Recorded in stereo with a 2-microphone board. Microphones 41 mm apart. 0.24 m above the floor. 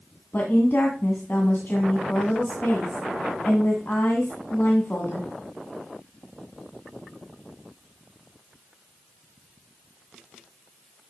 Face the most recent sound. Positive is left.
turn(degrees=55)  # may be behind; listen again after turning